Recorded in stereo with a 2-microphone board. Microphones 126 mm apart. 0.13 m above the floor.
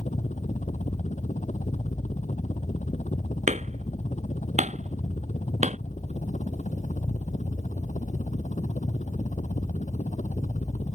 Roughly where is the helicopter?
Left.